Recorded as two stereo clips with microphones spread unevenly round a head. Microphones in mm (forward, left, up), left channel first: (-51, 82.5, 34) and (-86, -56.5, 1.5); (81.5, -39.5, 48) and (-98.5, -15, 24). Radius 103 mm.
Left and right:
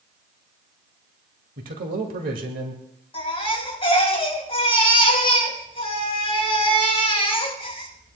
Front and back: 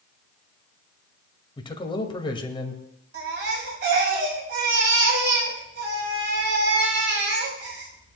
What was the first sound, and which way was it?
A man speaking, 75° right.